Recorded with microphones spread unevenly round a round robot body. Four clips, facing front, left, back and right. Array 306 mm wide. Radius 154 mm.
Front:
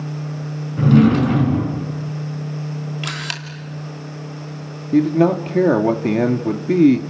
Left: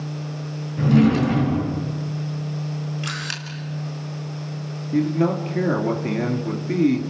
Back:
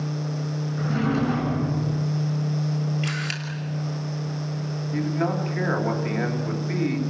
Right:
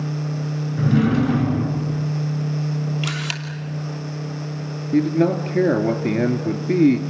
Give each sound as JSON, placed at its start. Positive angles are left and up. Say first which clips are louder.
{"t": 0.8, "sound": "a drawer", "louder": "left 2 dB, front 11 dB", "azimuth_deg": -5, "distance_m": 5.5}
{"t": 3.0, "sound": "a camera shutter", "louder": "right 3 dB, front 1 dB", "azimuth_deg": -35, "distance_m": 2.5}
{"t": 4.9, "sound": "a man speaking", "louder": "right 3 dB, front 11 dB", "azimuth_deg": -15, "distance_m": 2.0}